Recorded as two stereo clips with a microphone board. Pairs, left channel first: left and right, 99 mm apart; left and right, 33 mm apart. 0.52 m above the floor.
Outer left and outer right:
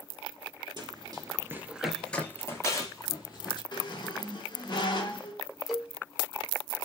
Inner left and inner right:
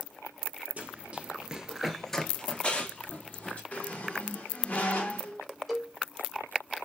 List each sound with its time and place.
0.8 s running footsteps: 45° right (ahead or behind), 0.7 m; by 3.6 s 40° left (ahead or behind), 1.2 m
3.7 s a squeak: 50° left (ahead or behind), 0.7 m
5.7 s a cowbell: centre (ahead or behind), 0.5 m